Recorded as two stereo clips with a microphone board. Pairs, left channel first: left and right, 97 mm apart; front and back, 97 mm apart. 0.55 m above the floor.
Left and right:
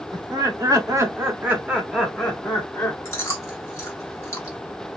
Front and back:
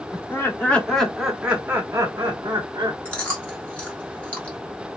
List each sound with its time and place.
0.1 s laughter: 55° right, 1.3 m; by 3.0 s 155° left, 1.3 m
3.0 s chewing: 65° left, 1.4 m